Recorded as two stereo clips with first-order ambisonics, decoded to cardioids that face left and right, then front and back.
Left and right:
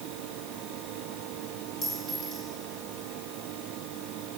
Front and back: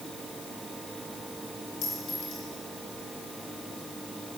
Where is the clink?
20° left, 2.5 m.